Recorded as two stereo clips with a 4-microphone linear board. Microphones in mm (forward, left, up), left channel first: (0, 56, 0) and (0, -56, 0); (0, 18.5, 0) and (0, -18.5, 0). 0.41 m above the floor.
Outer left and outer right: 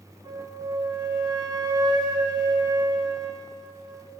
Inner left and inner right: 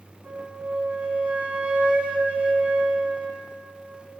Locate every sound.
0.2 s a flute: 35° right (ahead or behind), 3.5 m